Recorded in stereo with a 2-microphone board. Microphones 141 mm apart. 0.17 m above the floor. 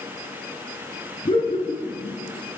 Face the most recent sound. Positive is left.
turn(degrees=45)  # may be behind; listen again after turning